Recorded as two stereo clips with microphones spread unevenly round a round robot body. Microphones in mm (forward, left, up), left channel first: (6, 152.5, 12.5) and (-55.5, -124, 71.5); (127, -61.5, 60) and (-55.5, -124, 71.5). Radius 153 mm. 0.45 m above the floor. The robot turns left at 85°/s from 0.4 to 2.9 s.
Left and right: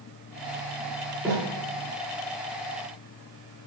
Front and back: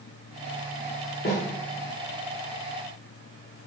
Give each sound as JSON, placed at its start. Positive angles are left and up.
{"t": 1.2, "sound": "a snare drum", "azimuth_deg": -15, "distance_m": 7.5}